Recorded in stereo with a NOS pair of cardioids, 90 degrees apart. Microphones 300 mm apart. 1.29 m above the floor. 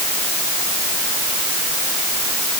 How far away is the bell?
I don't hear a bell.